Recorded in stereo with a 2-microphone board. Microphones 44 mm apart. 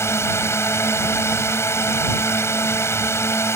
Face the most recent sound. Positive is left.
turn(degrees=80)